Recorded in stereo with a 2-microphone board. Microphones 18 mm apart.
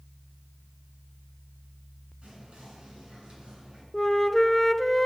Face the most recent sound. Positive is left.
turn(degrees=20)  # may be behind; listen again after turning